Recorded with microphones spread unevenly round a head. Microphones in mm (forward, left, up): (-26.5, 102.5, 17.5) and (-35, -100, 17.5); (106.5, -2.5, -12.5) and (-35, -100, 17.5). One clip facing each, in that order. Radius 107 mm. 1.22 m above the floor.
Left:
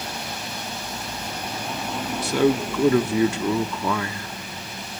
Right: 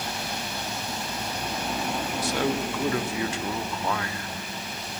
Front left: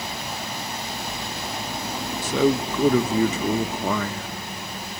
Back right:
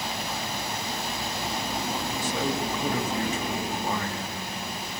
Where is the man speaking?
70° left, 1.0 m.